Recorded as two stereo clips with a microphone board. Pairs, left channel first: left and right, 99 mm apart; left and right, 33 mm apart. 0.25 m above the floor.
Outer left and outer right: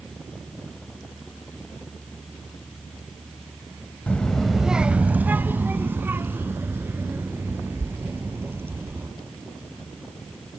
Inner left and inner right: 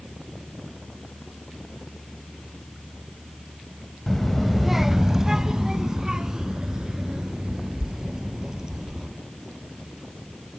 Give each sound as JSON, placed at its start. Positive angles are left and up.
{"t": 4.1, "sound": "a child speaking", "side_deg": 10, "distance_m": 0.6}